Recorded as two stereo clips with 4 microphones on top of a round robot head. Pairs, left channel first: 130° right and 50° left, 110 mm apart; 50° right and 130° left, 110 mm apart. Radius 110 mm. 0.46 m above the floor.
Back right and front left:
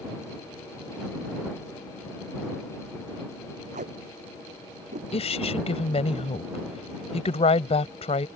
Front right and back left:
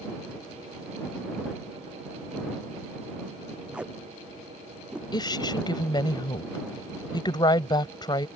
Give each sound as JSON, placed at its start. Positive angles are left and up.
{"t": 3.7, "sound": "tape being pulled", "azimuth_deg": 50}
{"t": 5.1, "sound": "a woman speaking", "azimuth_deg": -100}